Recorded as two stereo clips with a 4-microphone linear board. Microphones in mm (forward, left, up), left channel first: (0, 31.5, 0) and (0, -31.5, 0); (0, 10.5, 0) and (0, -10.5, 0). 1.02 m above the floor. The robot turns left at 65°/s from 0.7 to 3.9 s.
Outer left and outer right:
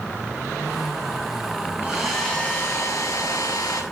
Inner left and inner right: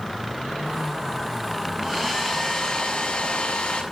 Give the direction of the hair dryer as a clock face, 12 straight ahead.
5 o'clock.